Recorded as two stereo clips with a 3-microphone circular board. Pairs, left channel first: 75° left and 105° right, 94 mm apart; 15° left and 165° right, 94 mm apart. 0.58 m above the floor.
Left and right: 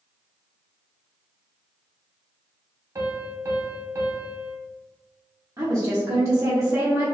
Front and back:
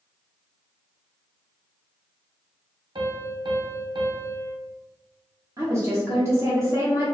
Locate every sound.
3.0 s a piano: 155° right, 0.6 m
5.6 s a woman speaking: 130° right, 0.9 m